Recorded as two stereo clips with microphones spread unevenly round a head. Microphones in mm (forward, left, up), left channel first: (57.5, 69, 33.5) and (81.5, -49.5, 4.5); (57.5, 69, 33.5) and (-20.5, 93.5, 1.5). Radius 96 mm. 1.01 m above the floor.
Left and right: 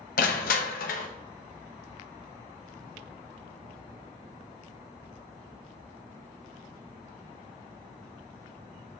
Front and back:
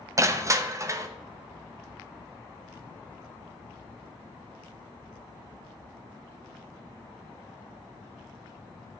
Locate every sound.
0.2 s crushing: 120° left, 0.9 m